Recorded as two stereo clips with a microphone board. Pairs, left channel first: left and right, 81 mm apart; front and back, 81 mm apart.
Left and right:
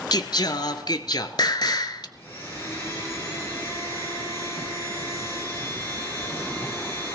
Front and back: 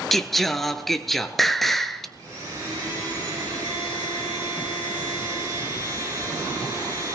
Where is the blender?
145° left, 5 m.